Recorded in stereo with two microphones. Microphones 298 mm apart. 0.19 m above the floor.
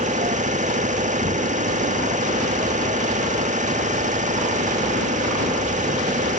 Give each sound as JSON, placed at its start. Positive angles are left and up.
{"t": 0.0, "sound": "an engine running", "side_deg": -25}